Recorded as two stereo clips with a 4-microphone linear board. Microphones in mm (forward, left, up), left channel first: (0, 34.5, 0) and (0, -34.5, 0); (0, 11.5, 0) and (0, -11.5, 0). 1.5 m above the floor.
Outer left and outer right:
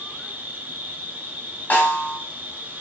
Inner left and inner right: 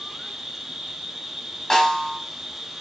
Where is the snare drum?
25° left (ahead or behind), 1.4 m.